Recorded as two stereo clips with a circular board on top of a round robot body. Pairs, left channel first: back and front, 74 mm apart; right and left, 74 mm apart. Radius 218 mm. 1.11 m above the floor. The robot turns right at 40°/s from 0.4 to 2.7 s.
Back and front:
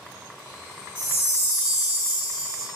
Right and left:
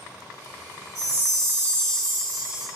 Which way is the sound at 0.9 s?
55° right.